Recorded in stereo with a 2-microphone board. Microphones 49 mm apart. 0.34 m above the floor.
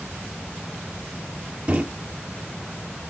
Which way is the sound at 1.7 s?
25° right (ahead or behind).